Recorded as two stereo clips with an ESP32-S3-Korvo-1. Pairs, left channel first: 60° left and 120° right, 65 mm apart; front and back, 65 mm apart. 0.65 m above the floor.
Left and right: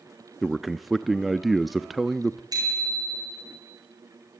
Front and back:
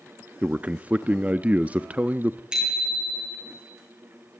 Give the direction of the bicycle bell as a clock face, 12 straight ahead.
3 o'clock.